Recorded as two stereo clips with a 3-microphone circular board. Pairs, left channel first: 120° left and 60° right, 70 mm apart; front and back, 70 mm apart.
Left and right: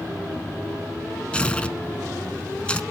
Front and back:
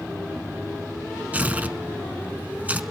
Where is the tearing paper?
165° left, 0.7 m.